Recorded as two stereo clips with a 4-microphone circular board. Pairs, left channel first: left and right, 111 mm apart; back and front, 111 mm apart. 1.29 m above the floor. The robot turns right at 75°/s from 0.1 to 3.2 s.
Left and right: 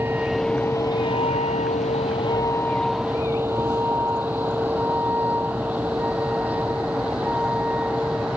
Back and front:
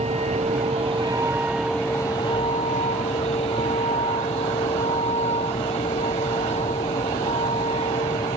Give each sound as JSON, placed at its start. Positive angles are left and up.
{"t": 0.0, "sound": "a vehicle", "azimuth_deg": -20}